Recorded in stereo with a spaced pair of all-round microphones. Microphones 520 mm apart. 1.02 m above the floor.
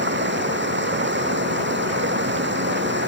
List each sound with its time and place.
0.0 s running water: 20° right (ahead or behind)